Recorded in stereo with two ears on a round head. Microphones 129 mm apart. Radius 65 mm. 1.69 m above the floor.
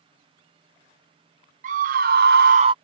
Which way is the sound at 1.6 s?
55° right (ahead or behind).